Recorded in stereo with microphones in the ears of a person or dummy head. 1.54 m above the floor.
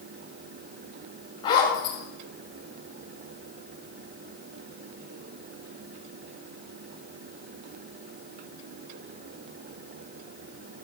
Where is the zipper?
30° left (ahead or behind), 6.5 m.